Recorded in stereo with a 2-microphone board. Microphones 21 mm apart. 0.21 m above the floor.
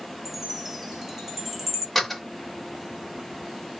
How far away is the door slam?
About 1.0 m.